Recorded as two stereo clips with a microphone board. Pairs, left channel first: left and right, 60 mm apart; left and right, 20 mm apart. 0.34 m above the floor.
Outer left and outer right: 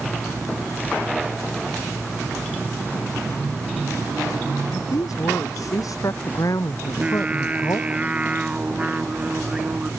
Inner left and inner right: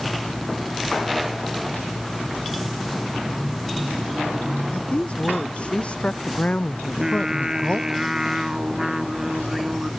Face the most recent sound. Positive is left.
turn(degrees=-20)  # may be behind; listen again after turning